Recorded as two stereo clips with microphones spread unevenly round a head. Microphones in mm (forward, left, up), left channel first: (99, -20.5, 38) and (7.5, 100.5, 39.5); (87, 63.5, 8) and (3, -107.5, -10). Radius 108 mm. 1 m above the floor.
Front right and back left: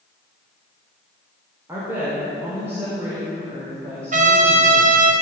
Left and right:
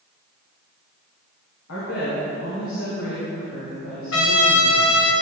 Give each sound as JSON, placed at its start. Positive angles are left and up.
{"t": 1.7, "sound": "a woman speaking", "azimuth_deg": 55, "distance_m": 3.5}
{"t": 4.1, "sound": "a trumpet", "azimuth_deg": 100, "distance_m": 1.4}